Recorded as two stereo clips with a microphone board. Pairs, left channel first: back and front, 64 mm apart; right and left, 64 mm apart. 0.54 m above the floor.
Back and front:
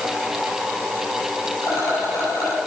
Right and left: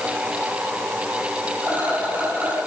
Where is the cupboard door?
No cupboard door in this recording.